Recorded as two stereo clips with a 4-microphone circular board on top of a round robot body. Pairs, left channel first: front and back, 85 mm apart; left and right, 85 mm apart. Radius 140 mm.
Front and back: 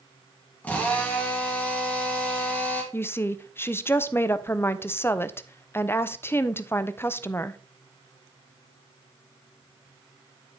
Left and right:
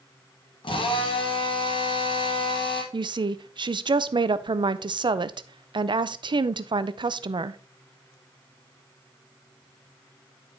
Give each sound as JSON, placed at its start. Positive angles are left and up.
{"t": 0.6, "sound": "a drill", "azimuth_deg": 70, "distance_m": 2.0}
{"t": 2.9, "sound": "a woman speaking", "azimuth_deg": -65, "distance_m": 0.6}